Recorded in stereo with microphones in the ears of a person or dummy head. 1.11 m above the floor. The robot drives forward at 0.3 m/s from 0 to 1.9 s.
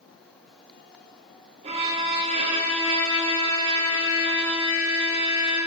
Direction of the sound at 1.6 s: 35° right (ahead or behind).